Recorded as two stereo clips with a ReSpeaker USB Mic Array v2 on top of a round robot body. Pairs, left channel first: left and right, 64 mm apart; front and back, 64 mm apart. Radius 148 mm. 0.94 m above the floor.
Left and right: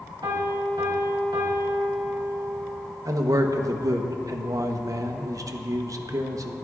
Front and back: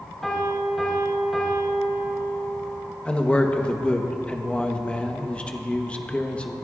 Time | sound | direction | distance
0.2 | a piano | 90° right | 2.5 m
3.0 | a man speaking | 70° right | 1.1 m